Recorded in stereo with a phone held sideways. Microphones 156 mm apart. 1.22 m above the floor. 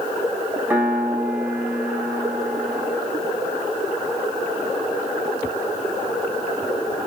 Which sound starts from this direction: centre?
A piano, at 0.7 s.